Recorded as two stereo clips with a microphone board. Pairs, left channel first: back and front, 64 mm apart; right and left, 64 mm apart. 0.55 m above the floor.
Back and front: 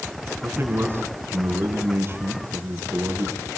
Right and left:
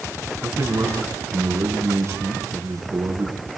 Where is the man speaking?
55° left, 4.5 m.